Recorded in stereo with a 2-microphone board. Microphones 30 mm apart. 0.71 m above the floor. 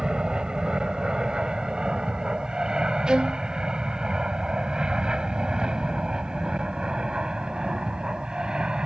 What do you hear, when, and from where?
0.0 s an aircraft: 25° right (ahead or behind); by 8.9 s 30° right (ahead or behind)
3.1 s a violin: 25° right (ahead or behind)